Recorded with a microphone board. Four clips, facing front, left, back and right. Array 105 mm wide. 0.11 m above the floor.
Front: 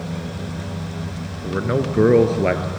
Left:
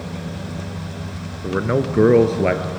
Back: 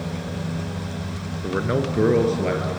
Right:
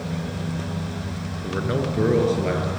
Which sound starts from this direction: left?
A man speaking, at 1.4 s.